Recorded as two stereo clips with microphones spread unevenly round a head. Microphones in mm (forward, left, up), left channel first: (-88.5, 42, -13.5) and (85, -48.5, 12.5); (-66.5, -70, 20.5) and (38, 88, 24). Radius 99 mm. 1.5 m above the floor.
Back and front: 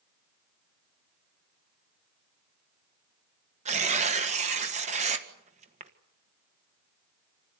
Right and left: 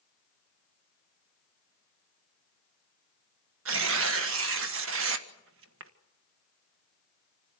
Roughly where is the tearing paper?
Ahead left.